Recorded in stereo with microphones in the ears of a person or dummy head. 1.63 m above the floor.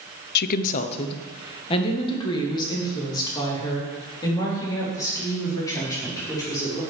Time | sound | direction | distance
0.3 | a woman speaking | 50° left (ahead or behind) | 0.6 m